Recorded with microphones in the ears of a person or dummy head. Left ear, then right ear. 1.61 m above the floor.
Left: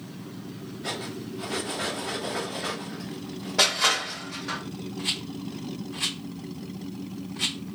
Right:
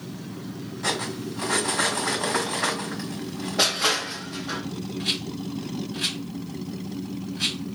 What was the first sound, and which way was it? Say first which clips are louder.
Cutlery clinking: right 6 dB; 40° right (ahead or behind).